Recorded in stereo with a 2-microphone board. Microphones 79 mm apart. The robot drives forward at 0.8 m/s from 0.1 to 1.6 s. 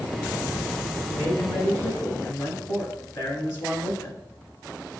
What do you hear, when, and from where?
1.1 s a man speaking: 35° left (ahead or behind), 1.7 m; by 4.2 s 30° left (ahead or behind), 2.0 m